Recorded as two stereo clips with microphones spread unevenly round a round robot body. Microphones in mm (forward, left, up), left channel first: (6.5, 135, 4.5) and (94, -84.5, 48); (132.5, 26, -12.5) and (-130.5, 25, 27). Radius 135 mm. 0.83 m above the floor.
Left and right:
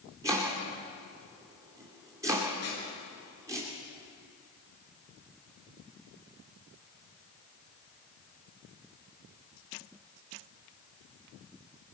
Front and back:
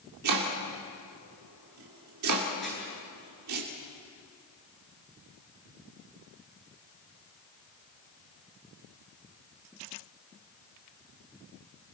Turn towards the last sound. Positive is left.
turn(degrees=90)